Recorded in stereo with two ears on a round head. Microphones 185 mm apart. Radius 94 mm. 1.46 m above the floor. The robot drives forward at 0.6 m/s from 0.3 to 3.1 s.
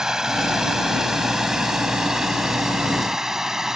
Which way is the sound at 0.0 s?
5° right (ahead or behind).